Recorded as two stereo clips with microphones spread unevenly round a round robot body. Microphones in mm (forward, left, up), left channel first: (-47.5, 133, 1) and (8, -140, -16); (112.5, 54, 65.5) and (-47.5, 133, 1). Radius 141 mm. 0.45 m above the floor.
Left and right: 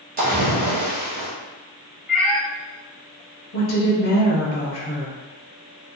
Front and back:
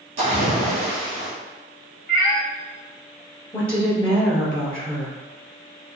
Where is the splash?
140° right, 2.0 m.